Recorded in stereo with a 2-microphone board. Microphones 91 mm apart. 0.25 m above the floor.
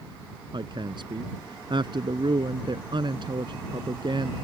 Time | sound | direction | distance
0.5 | a woman speaking | 60° right (ahead or behind) | ?